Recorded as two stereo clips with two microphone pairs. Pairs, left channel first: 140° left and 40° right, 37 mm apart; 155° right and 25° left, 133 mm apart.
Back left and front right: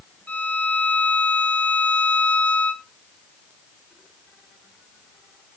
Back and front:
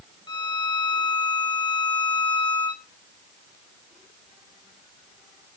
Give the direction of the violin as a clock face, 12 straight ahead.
7 o'clock.